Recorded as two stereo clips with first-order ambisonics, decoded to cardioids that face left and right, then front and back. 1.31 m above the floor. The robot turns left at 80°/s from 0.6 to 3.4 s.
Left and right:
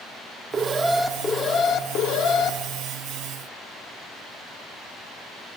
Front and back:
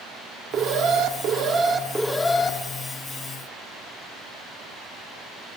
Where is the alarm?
150° right, 0.5 m; by 2.6 s 55° left, 0.5 m.